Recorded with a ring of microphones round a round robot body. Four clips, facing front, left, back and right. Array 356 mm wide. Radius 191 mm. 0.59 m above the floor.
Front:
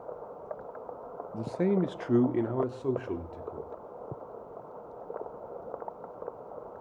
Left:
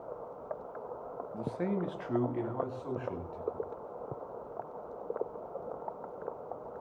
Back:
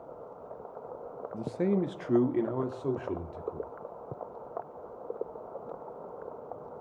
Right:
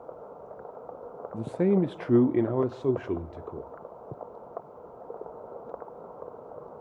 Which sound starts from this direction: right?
A man speaking, at 1.3 s.